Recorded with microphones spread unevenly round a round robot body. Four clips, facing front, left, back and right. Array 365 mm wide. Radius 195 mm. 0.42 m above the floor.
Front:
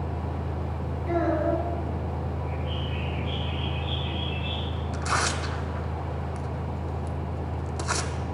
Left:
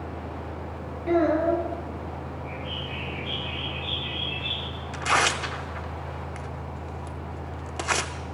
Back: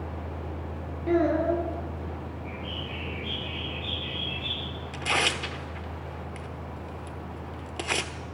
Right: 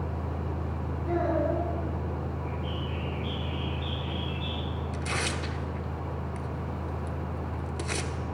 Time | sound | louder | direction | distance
1.1 | a child speaking | left 6 dB, back 2 dB | 140° left | 8 m
2.5 | a bird | even, front 4 dB | 145° right | 7.5 m
4.9 | tearing paper | left 11 dB, front 1 dB | 155° left | 1.3 m